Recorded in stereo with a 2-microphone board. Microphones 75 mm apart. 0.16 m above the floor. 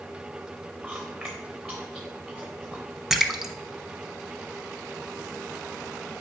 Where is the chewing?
Centre (ahead or behind), 2.5 m.